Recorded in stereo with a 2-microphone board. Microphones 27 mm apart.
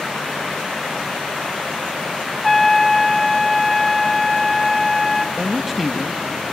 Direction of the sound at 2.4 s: 5° left (ahead or behind).